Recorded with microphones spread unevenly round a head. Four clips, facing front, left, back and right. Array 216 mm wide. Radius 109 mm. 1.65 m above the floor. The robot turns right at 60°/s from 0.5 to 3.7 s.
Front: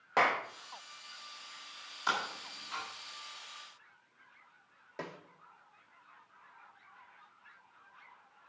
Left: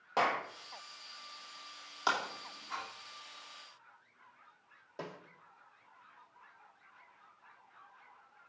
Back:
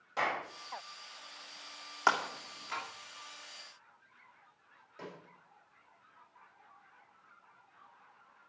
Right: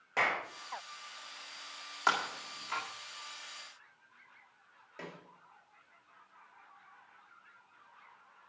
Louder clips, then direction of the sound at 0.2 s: Left 2 dB, front 5 dB; 15° left.